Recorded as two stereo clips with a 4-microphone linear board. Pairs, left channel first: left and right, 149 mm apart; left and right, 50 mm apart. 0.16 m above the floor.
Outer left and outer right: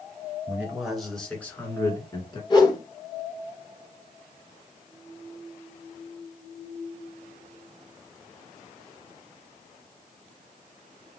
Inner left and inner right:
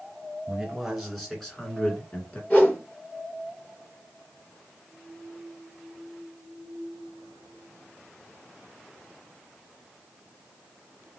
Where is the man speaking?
10° right (ahead or behind), 2.5 m; by 2.4 s 35° left (ahead or behind), 2 m.